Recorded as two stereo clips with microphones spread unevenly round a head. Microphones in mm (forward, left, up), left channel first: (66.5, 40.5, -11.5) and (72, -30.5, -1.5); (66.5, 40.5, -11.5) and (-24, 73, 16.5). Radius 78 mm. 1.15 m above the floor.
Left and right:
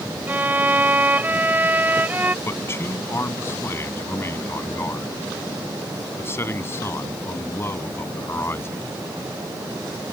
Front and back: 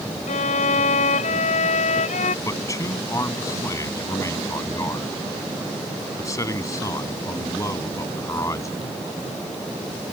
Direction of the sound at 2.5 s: 40° left.